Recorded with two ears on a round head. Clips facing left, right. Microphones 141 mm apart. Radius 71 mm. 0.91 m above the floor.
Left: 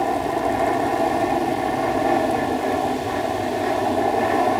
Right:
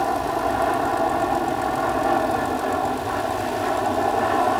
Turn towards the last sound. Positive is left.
turn(degrees=15)  # may be behind; listen again after turning